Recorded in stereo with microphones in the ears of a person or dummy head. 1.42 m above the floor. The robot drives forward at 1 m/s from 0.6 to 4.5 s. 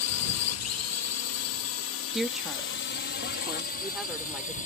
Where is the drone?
75° left (ahead or behind); by 4.7 s 45° left (ahead or behind).